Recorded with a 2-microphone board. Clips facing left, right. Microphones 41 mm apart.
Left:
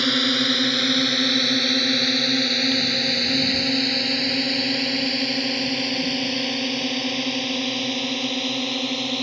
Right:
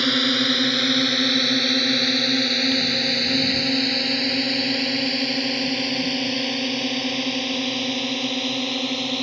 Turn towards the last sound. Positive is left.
turn(degrees=0)  # may be behind; listen again after turning